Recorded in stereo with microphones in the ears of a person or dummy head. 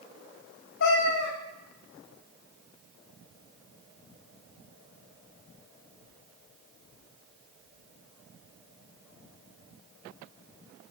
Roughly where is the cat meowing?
Left.